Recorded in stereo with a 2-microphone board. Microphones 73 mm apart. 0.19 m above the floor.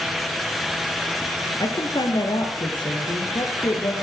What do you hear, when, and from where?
1.6 s a woman speaking: 65° left (ahead or behind), 3 m; by 3.9 s 80° left, 5 m